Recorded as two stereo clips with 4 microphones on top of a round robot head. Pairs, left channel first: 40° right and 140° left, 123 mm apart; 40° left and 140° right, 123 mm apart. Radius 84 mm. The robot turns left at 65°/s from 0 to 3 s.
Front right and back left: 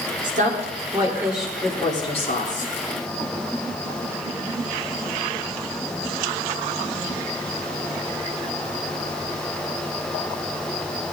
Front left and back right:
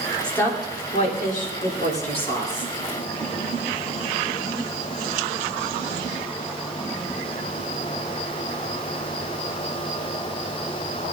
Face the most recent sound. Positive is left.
turn(degrees=-55)